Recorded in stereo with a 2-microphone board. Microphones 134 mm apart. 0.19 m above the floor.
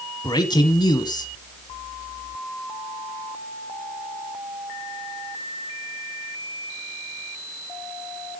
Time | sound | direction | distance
0.2 | a man speaking | 30° left (ahead or behind) | 1.2 m